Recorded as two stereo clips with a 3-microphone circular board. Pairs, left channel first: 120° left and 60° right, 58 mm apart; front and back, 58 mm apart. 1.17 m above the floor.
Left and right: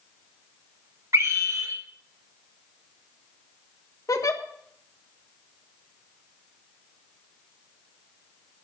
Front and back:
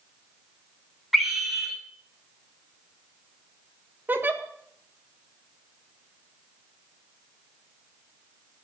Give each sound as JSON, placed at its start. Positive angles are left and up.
{"t": 1.1, "sound": "a scream", "azimuth_deg": -90, "distance_m": 5.0}
{"t": 4.1, "sound": "a giggle", "azimuth_deg": 125, "distance_m": 1.6}